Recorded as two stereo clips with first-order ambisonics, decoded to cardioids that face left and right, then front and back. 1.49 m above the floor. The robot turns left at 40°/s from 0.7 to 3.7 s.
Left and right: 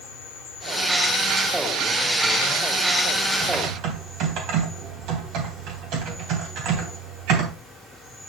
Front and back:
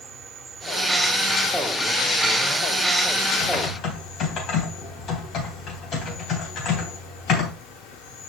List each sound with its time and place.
0.0 s an insect: 115° left, 3.5 m; by 8.3 s 5° right, 3.5 m
3.4 s typing on a keyboard: 40° right, 3 m; by 7.5 s 55° right, 3 m